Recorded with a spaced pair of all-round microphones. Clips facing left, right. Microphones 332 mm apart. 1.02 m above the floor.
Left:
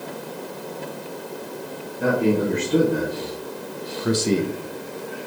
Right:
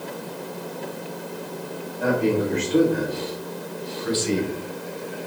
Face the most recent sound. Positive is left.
turn(degrees=35)  # may be behind; listen again after turning